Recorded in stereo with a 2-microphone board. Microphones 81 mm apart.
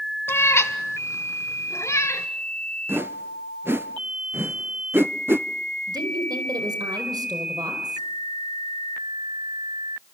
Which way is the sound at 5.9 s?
55° right (ahead or behind).